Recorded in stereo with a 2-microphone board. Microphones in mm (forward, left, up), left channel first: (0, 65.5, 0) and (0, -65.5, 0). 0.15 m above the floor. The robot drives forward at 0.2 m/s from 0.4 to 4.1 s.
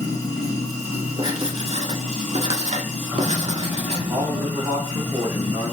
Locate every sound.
0.0 s running water: 25° left (ahead or behind), 1.1 m; by 5.7 s 15° left (ahead or behind), 1.8 m
1.2 s writing: 45° right (ahead or behind), 0.7 m; by 4.0 s 50° right (ahead or behind), 0.7 m
4.1 s a man speaking: 25° right (ahead or behind), 1.1 m